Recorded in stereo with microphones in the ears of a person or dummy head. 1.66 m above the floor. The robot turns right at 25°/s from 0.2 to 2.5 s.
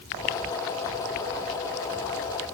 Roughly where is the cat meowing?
I don't hear a cat meowing.